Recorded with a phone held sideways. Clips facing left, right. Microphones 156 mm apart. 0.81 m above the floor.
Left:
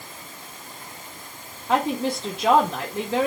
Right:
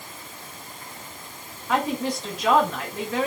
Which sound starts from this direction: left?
A woman speaking, at 1.7 s.